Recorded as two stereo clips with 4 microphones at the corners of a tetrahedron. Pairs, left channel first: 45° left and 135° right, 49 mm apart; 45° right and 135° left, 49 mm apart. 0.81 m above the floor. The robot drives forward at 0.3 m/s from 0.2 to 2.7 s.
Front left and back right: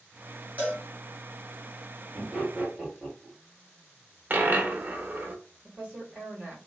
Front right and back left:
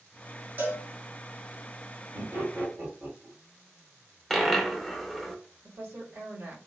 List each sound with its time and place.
0.6 s a cowbell: 175° left, 1.7 m
2.1 s laughter: 155° left, 1.8 m; by 3.4 s 160° left, 2.0 m
4.3 s a dropped coin: 125° right, 0.5 m
5.6 s a woman speaking: 165° left, 2 m